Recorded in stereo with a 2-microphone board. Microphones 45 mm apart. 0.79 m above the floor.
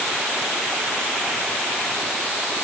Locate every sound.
Only background noise.